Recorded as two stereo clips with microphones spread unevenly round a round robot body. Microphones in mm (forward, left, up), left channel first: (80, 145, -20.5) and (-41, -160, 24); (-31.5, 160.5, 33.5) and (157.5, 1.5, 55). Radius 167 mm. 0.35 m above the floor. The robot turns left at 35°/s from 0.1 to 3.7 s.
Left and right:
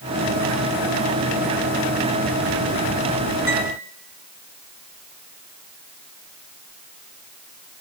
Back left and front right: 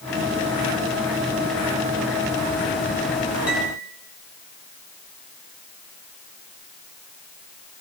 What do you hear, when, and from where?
3.5 s a piano: 130° left, 4.5 m; by 3.8 s 120° left, 4.5 m